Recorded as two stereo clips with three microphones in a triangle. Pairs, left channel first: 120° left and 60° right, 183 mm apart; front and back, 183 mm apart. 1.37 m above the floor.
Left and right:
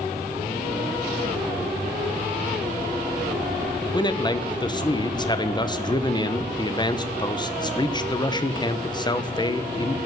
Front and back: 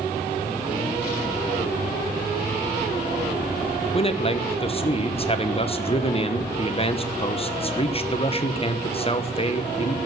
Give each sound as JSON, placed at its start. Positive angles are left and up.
{"t": 3.9, "sound": "a man speaking", "azimuth_deg": 55, "distance_m": 1.0}